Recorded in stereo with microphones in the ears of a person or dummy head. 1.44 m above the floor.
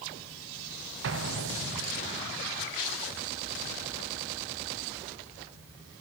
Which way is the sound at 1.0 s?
65° right (ahead or behind).